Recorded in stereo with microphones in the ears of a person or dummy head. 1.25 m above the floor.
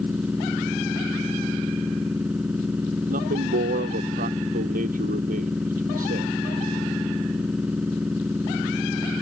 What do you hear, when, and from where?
0.0 s a machine running: 5° right (ahead or behind)
3.1 s a man speaking: 45° right (ahead or behind)